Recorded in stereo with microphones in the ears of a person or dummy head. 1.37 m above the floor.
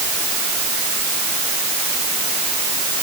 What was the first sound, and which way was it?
Only background noise.